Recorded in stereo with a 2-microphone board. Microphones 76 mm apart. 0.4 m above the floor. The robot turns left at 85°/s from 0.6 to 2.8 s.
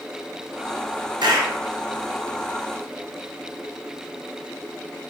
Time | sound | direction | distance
1.2 | a clap | 115° right | 4 m